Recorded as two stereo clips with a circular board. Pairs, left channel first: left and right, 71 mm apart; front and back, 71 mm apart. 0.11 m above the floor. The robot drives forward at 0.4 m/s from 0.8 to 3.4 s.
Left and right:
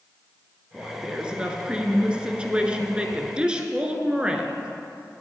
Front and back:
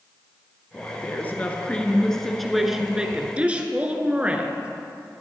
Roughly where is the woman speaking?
Ahead right.